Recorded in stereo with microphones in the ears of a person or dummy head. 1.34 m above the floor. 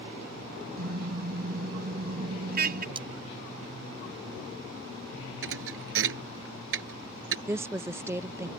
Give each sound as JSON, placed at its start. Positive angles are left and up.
{"t": 0.8, "sound": "a car horn", "side_deg": -55}
{"t": 3.0, "sound": "cutlery clinking", "side_deg": -25}
{"t": 5.4, "sound": "a thud", "side_deg": -75}
{"t": 7.5, "sound": "a woman speaking", "side_deg": -15}